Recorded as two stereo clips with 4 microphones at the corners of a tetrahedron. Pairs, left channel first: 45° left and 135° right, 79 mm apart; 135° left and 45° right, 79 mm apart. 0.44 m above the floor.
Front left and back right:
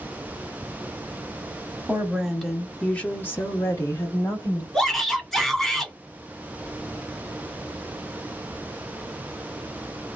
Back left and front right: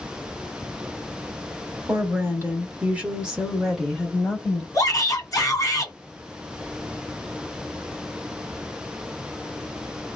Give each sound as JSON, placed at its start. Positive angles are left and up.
{"t": 1.9, "sound": "a woman speaking", "azimuth_deg": -70, "distance_m": 1.1}
{"t": 4.7, "sound": "a shout", "azimuth_deg": 130, "distance_m": 1.8}